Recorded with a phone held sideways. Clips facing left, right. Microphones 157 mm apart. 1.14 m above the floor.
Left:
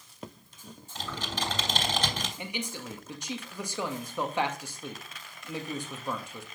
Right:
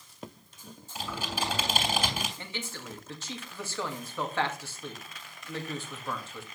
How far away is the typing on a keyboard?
About 3 m.